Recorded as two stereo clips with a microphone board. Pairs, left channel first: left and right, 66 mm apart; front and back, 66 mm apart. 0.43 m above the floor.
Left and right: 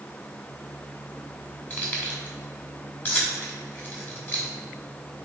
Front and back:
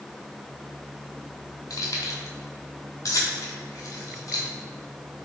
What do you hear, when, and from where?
1.7 s keys jangling: 30° left, 1.8 m